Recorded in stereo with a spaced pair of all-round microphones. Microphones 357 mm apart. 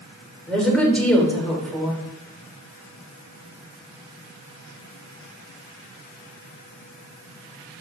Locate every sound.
0.5 s a woman speaking: 5° left (ahead or behind), 3 m